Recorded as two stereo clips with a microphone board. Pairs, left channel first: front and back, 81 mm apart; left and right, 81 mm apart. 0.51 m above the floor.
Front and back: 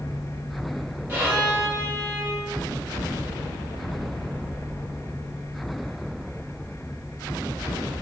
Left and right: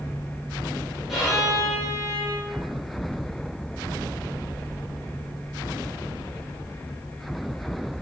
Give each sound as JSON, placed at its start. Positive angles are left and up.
{"t": 1.1, "sound": "a violin", "azimuth_deg": 180, "distance_m": 1.1}